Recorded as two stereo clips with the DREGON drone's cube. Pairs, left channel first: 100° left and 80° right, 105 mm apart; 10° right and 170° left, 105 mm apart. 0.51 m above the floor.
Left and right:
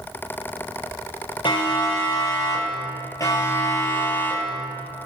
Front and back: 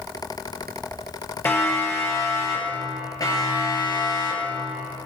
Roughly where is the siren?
Ahead left.